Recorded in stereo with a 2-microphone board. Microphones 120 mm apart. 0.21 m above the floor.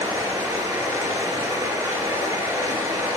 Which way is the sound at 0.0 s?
25° right (ahead or behind).